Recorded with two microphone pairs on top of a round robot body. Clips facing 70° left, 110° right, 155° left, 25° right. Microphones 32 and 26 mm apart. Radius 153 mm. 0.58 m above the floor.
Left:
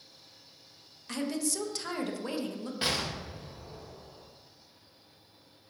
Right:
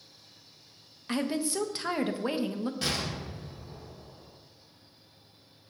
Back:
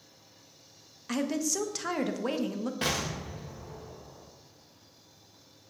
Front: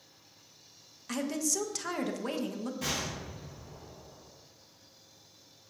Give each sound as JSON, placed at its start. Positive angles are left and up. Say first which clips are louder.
{"t": 1.1, "sound": "a woman speaking", "louder": "right 3 dB, back 2 dB", "azimuth_deg": -155, "distance_m": 0.9}
{"t": 2.8, "sound": "an explosion", "louder": "even, back 4 dB", "azimuth_deg": 135, "distance_m": 1.3}